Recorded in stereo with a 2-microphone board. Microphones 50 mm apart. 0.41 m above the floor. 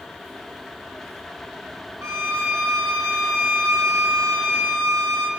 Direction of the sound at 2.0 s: 70° right (ahead or behind).